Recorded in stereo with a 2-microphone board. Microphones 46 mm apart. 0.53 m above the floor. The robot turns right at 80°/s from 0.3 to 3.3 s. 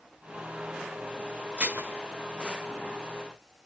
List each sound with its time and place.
1.6 s dishes clattering: 30° right (ahead or behind), 1.2 m; by 1.9 s 50° right (ahead or behind), 1.2 m